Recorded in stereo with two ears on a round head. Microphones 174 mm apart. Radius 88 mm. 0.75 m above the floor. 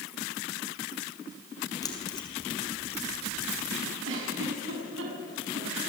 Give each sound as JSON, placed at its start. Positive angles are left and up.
{"t": 1.8, "sound": "keys jangling", "side_deg": 20, "distance_m": 4.5}
{"t": 4.0, "sound": "a giggle", "side_deg": -75, "distance_m": 6.5}